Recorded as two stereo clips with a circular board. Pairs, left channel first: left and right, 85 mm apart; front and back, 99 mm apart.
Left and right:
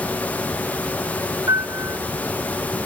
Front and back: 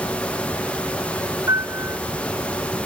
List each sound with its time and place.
1.5 s a piano: 130° right